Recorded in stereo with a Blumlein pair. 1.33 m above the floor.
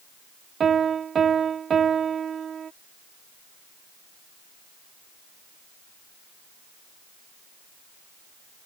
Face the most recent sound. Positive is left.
turn(degrees=-20)